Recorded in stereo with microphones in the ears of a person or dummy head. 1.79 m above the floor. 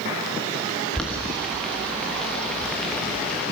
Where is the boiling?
Centre (ahead or behind), 1.3 m.